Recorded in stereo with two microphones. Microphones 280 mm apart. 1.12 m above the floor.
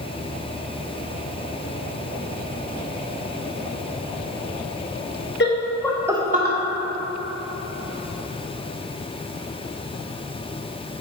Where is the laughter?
40° left (ahead or behind), 0.8 m; by 6.6 s 40° right (ahead or behind), 0.8 m.